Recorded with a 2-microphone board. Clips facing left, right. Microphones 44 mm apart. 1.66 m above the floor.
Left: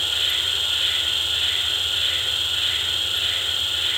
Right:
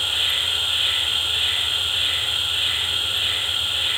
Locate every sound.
0.0 s an insect: 20° right (ahead or behind), 7.5 m